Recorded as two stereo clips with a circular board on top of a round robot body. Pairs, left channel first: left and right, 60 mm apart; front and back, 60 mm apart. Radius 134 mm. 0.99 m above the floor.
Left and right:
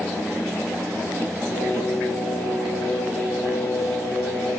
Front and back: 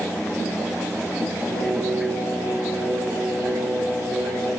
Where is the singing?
140° left, 7 m.